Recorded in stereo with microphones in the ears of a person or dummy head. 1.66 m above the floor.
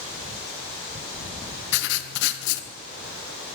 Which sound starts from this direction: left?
Writing, at 1.7 s.